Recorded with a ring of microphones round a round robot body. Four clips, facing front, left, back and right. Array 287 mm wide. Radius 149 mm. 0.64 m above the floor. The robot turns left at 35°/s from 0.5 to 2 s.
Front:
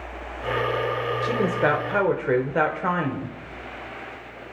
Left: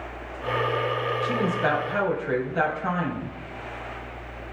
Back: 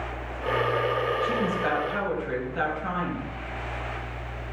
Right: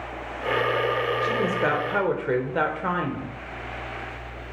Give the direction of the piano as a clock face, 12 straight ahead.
I don't hear a piano.